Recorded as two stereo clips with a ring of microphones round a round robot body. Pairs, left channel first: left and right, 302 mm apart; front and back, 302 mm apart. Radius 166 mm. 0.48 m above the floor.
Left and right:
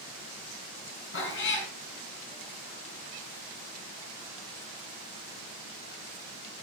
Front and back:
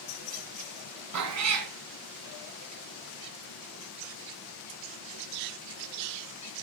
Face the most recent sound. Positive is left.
turn(degrees=145)